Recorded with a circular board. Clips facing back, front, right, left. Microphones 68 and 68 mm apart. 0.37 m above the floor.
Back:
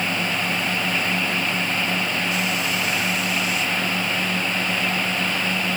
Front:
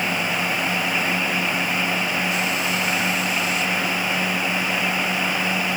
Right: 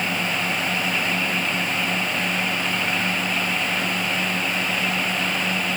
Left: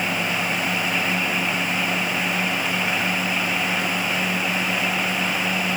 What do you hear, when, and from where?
Only background noise.